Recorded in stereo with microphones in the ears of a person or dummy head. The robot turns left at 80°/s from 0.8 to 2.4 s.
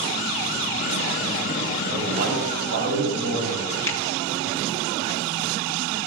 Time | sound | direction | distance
1.9 | a man speaking | 25° right | 5.5 m
3.9 | a finger snap | 20° left (ahead or behind) | 1.6 m